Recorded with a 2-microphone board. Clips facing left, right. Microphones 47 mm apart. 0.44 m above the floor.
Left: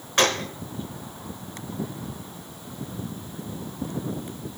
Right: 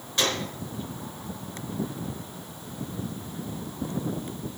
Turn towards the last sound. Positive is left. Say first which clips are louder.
# left 5 dB
turn(degrees=60)  # may be behind; listen again after turning